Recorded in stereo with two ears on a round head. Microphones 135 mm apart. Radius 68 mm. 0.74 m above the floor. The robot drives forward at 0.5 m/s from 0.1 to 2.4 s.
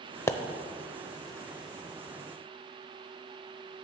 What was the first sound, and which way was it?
A pop, 20° left (ahead or behind).